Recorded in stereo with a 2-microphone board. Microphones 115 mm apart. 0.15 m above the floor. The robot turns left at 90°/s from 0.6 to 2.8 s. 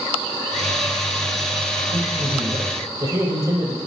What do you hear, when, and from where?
1.9 s a man speaking: 70° right, 3.5 m; by 3.8 s 150° right, 3.5 m